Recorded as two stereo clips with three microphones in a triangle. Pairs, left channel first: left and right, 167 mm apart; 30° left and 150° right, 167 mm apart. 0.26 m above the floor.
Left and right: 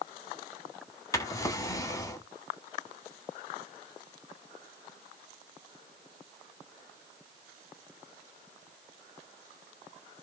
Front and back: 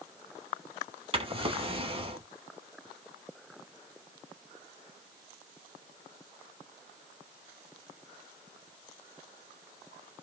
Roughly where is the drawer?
Behind.